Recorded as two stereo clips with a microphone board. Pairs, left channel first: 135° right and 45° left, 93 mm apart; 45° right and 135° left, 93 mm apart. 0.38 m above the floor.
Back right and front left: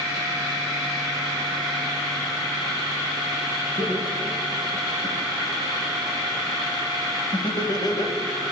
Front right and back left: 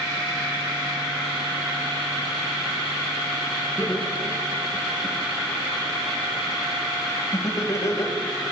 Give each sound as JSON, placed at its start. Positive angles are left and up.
{"t": 3.8, "sound": "laughter", "azimuth_deg": -120, "distance_m": 5.0}